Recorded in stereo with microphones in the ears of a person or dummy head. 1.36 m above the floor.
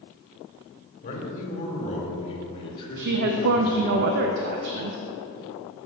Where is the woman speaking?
60° right (ahead or behind), 0.6 m.